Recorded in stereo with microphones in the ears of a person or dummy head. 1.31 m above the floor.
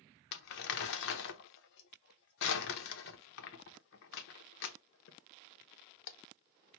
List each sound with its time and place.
0.3 s crumpling: 60° left (ahead or behind), 0.7 m